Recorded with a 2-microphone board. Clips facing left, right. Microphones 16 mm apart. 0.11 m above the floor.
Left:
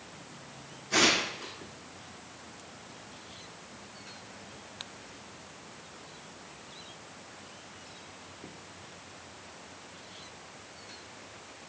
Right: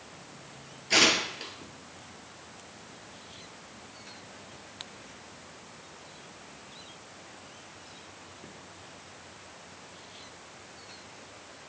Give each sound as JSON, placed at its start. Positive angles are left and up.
{"t": 0.9, "sound": "tearing paper", "side_deg": -40, "distance_m": 1.9}